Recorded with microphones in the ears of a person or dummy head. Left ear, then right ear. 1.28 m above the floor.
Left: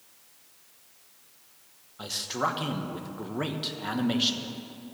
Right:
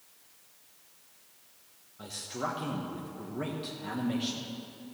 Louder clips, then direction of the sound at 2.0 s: Left 7 dB; 35° left (ahead or behind).